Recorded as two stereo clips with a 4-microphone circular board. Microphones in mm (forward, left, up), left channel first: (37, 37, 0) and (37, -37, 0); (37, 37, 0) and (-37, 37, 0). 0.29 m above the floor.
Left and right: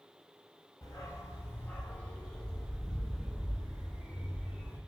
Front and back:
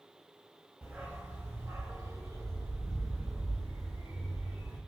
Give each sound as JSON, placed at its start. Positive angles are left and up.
{"t": 0.8, "sound": "a dog barking", "azimuth_deg": 110, "distance_m": 0.9}